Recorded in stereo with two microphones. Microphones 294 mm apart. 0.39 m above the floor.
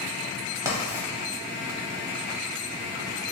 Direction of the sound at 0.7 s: 10° right (ahead or behind).